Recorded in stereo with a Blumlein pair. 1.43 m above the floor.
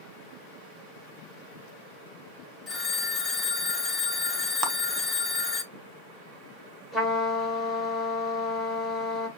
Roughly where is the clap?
Ahead right.